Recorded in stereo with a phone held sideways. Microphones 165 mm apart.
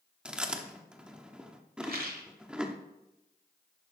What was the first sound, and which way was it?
Chewing, 5° right (ahead or behind).